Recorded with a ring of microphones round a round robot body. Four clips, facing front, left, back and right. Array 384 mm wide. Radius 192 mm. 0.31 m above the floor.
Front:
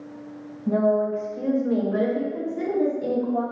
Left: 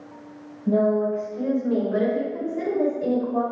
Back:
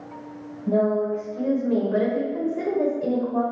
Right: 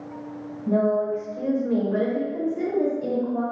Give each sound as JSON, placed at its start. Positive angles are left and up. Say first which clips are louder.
{"t": 0.7, "sound": "a woman speaking", "louder": "left 1 dB, even", "azimuth_deg": -35, "distance_m": 1.3}